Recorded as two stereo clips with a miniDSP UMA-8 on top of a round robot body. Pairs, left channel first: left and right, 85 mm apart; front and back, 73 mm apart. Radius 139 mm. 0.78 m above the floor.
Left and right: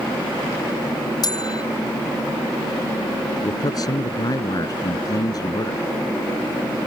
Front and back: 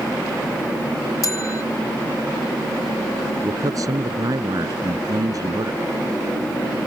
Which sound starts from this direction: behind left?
A man speaking, at 3.4 s.